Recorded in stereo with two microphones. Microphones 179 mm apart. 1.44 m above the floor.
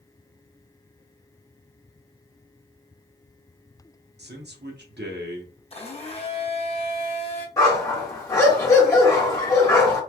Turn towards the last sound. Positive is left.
turn(degrees=15)  # may be behind; listen again after turning